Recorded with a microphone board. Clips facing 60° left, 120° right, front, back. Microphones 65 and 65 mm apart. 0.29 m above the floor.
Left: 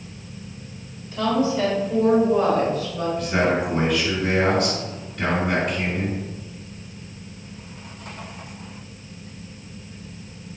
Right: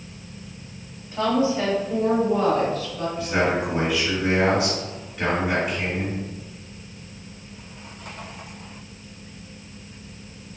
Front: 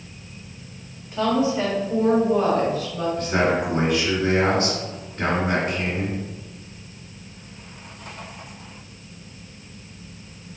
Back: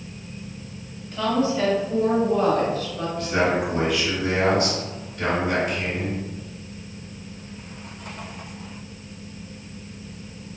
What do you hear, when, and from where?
1.1 s a woman speaking: 75° right, 1.8 m; by 3.1 s 75° left, 1.5 m
3.2 s a man speaking: 40° right, 1.5 m